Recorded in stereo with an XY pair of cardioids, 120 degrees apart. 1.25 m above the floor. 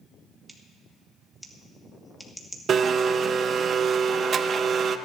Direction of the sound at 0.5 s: 5° right.